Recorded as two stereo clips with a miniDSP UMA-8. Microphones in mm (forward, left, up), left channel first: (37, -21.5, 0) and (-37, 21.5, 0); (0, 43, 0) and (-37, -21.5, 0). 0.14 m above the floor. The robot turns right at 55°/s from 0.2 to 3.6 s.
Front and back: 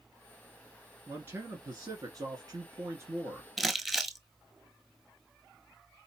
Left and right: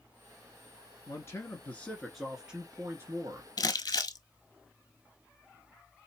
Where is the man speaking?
85° left, 1.5 m; by 3.5 s 140° right, 1.5 m.